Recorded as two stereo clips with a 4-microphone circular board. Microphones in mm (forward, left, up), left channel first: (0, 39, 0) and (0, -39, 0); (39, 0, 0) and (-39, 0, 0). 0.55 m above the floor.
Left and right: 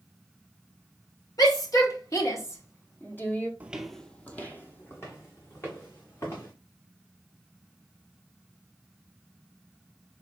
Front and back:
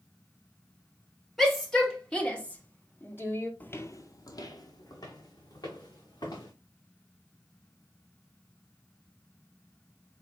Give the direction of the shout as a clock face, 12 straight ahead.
9 o'clock.